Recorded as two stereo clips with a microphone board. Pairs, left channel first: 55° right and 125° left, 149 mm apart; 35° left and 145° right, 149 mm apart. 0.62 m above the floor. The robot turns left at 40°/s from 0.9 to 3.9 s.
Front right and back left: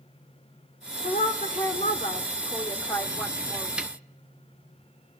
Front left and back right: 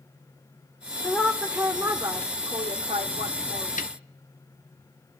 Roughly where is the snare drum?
Ahead left.